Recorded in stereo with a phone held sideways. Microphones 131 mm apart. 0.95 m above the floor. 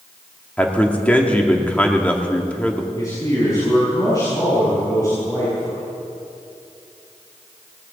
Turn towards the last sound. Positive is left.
turn(degrees=30)  # may be behind; listen again after turning